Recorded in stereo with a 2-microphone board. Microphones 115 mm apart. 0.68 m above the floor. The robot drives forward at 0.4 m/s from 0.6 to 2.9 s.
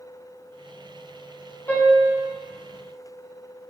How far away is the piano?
About 2.5 m.